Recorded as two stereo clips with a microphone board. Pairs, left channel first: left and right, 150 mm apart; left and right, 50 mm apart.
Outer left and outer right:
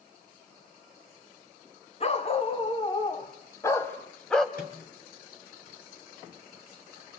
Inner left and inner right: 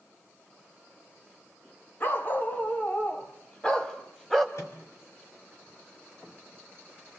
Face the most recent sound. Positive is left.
turn(degrees=70)  # may be behind; listen again after turning